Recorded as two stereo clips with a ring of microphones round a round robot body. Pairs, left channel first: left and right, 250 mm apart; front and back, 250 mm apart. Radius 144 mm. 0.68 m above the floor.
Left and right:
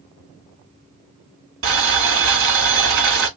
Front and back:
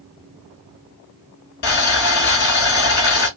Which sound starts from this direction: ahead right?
Boiling, at 1.6 s.